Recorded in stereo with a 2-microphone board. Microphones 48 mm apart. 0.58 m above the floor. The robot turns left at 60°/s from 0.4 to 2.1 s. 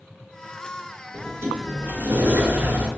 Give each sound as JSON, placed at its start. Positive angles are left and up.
{"t": 1.1, "sound": "a sliding door", "azimuth_deg": -80, "distance_m": 1.7}